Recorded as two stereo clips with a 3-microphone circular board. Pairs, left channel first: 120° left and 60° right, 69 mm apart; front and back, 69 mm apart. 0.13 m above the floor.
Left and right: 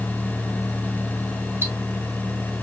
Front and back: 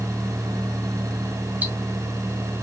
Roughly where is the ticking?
Right.